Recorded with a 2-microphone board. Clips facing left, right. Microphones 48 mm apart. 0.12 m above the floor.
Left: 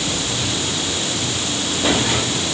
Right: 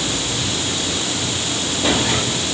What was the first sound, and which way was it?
Only background noise.